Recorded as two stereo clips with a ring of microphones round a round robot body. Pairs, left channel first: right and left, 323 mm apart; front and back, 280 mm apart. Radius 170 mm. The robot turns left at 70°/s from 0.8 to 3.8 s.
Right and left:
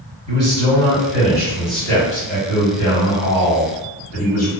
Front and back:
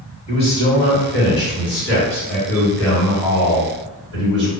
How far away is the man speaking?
About 1.7 m.